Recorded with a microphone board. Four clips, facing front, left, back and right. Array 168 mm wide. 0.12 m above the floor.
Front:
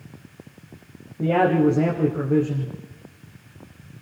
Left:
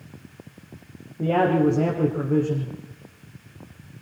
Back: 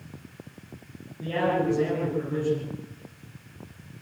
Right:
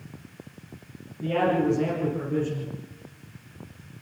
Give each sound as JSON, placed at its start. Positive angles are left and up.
{"t": 1.2, "sound": "a man speaking", "azimuth_deg": 45, "distance_m": 5.5}